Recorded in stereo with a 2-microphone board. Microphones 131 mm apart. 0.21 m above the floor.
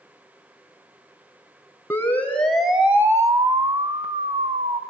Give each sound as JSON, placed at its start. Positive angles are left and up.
{"t": 1.9, "sound": "a siren", "side_deg": 20, "distance_m": 2.5}